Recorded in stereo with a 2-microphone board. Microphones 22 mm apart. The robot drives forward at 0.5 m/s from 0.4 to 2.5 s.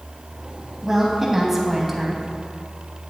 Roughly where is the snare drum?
I don't hear a snare drum.